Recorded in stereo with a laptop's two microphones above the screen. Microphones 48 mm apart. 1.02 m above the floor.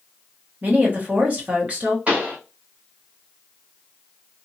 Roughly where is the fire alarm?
I don't hear a fire alarm.